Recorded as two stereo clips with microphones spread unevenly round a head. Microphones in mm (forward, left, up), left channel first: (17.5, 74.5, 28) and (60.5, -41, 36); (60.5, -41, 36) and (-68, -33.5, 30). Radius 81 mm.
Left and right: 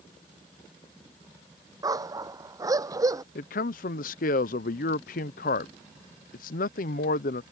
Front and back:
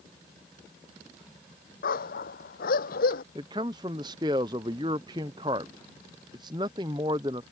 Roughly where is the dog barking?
Ahead.